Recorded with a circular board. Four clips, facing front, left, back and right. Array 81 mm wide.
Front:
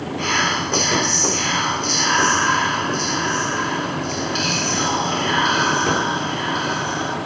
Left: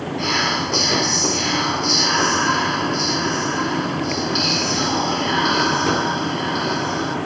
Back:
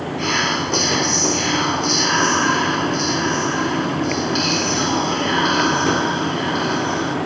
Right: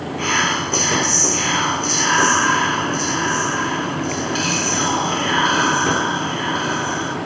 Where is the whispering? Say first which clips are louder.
Right 2 dB, even; 80° right, 1.1 m.